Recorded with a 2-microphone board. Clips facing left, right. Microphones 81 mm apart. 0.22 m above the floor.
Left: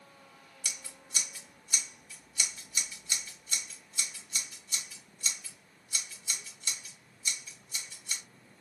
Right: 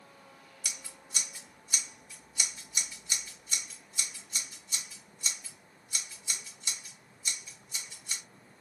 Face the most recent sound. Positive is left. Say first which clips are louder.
# left 1 dB
turn(degrees=-15)  # may be behind; listen again after turning